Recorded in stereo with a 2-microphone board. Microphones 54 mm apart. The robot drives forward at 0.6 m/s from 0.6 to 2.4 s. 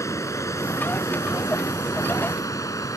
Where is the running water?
65° left (ahead or behind); by 3.0 s 80° left.